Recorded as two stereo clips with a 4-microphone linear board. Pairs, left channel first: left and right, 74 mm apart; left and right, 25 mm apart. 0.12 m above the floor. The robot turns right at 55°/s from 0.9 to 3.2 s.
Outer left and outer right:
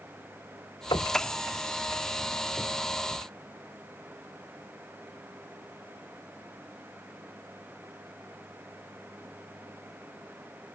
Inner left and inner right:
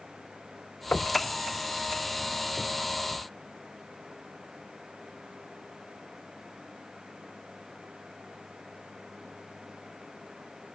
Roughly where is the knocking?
Left.